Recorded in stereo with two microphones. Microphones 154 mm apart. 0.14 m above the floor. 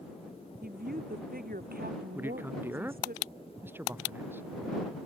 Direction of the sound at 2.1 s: 15° right (ahead or behind).